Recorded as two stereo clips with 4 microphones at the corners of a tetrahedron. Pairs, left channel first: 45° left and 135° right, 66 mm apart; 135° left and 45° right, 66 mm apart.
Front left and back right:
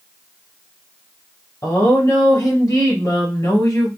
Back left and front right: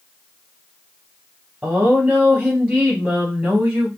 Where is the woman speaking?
20° left, 2.5 m.